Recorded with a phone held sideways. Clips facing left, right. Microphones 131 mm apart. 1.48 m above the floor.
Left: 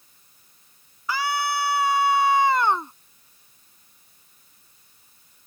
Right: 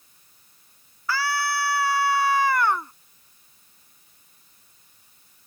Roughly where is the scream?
Centre.